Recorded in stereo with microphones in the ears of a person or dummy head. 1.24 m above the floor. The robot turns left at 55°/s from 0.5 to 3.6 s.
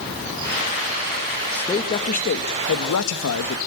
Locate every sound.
1.5 s a man speaking: 175° left, 1.8 m; by 3.6 s 60° left, 1.8 m